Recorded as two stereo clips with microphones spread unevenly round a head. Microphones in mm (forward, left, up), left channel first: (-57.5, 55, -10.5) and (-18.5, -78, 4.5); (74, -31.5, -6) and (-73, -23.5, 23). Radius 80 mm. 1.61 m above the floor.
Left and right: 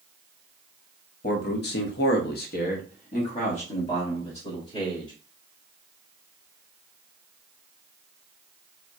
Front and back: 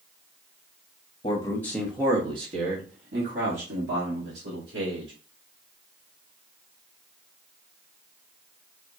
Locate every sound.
1.2 s a man speaking: 60° left, 0.9 m; by 5.1 s 160° left, 2.5 m